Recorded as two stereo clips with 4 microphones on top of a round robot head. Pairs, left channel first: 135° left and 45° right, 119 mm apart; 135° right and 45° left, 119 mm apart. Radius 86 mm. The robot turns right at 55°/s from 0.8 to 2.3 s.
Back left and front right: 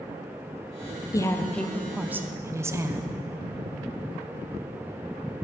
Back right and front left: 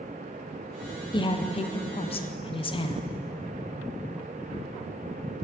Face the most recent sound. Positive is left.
turn(degrees=-110)